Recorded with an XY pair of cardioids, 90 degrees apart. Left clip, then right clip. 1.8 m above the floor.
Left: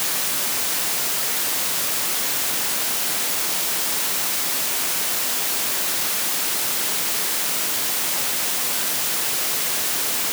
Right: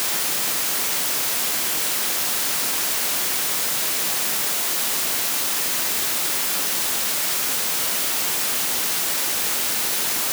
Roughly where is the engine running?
I don't hear an engine running.